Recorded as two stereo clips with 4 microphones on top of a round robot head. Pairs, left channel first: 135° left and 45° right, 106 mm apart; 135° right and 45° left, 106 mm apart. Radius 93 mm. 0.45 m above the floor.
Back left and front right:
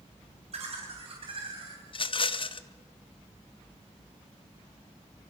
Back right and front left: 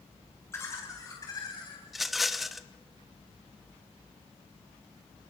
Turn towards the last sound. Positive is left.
turn(degrees=135)